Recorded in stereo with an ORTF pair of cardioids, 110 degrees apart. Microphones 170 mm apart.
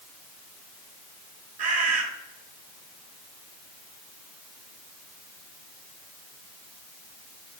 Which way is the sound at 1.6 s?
55° right.